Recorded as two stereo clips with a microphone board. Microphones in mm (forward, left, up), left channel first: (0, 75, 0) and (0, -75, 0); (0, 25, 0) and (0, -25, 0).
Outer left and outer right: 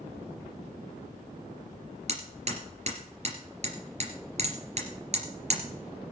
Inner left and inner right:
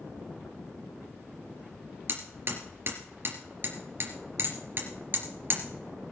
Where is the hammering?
50° right (ahead or behind), 3 m.